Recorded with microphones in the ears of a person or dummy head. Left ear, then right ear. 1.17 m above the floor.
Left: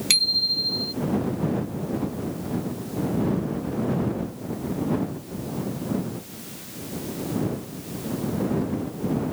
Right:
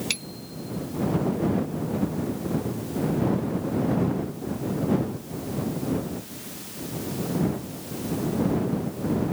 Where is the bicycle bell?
30° left (ahead or behind).